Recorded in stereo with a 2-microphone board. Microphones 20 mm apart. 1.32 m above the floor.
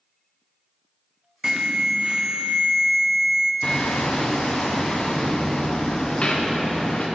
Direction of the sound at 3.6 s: 55° left (ahead or behind).